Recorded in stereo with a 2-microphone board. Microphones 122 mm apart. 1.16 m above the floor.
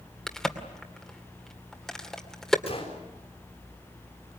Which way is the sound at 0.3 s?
5° left (ahead or behind).